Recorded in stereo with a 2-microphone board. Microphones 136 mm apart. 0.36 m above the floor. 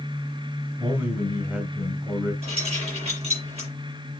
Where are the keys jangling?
50° right (ahead or behind), 6 m.